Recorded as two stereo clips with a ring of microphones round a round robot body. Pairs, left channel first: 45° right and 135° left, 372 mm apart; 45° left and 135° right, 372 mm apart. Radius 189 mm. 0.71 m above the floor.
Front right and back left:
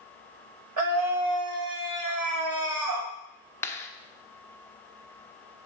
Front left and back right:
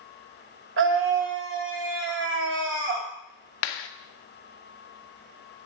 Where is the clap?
40° left, 1.1 m.